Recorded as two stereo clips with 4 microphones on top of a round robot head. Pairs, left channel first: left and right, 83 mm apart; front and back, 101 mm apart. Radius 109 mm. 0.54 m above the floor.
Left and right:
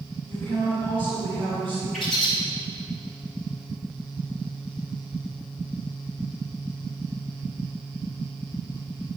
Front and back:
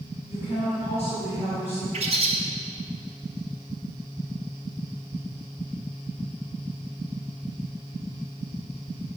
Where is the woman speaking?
110° right, 3.5 m.